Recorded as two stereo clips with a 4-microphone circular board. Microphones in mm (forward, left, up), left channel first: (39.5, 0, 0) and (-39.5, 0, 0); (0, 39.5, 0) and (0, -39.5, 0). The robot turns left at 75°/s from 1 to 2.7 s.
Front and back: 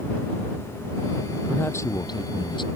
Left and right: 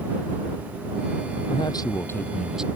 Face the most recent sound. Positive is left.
turn(degrees=-15)